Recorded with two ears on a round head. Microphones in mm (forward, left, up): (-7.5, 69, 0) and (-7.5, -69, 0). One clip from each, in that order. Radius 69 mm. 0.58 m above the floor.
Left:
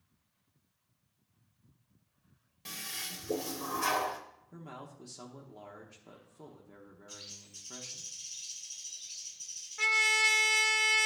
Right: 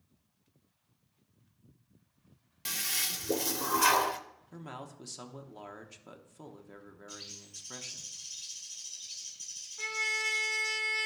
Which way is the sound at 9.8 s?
65° left (ahead or behind).